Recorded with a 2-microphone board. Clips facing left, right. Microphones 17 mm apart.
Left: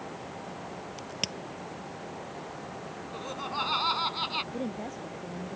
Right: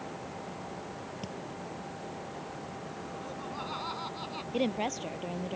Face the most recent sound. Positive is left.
turn(degrees=-55)  # may be behind; listen again after turning